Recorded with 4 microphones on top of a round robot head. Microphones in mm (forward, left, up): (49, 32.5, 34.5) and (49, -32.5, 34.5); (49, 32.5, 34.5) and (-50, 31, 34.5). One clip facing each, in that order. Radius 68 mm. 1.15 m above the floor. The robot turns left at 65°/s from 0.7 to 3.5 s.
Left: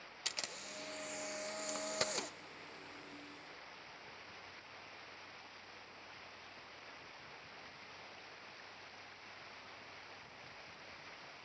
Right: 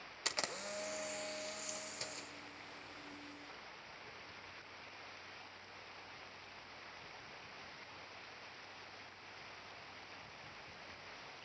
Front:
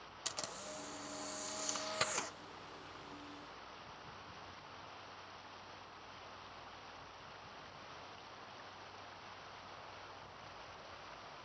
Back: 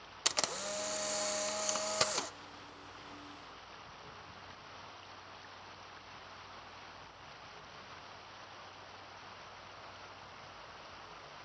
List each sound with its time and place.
0.2 s a camera shutter: 155° right, 0.5 m; by 2.3 s 100° left, 0.5 m